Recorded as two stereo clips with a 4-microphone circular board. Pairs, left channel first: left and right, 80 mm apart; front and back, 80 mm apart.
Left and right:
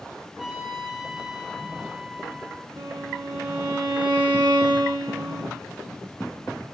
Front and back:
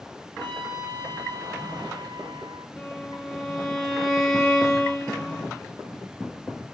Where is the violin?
85° right, 3 m.